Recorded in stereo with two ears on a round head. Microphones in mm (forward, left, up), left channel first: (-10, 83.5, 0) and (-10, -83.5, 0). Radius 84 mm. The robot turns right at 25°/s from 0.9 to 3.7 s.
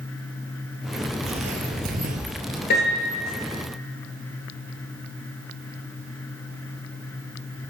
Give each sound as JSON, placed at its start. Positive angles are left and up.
{"t": 1.2, "sound": "footsteps", "side_deg": -35, "distance_m": 1.1}
{"t": 2.7, "sound": "a piano", "side_deg": 55, "distance_m": 2.5}